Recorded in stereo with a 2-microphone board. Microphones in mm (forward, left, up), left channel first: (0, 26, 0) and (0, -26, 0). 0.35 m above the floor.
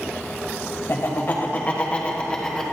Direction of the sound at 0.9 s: 50° left (ahead or behind).